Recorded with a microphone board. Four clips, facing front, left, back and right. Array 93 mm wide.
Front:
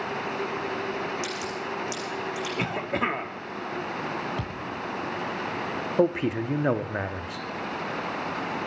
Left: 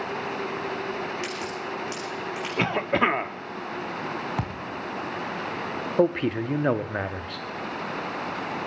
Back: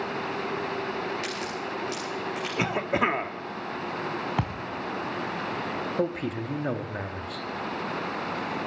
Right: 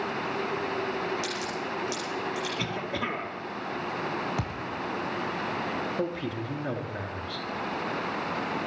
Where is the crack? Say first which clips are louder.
Left 1 dB, front 1 dB; 130° left, 8 m.